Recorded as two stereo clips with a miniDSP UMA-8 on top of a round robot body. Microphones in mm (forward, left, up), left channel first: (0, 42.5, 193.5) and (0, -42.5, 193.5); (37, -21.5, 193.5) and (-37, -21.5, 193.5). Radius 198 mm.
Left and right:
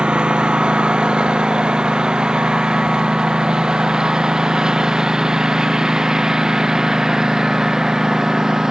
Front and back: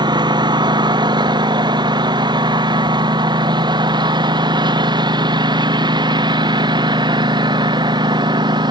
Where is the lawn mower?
170° right; by 8.7 s 175° right.